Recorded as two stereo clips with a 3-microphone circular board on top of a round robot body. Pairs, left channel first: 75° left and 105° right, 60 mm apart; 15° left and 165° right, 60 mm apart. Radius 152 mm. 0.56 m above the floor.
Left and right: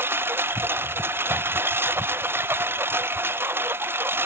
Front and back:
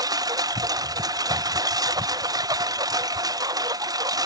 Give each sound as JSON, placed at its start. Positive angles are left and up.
{"t": 0.0, "sound": "a lawn mower", "azimuth_deg": -160}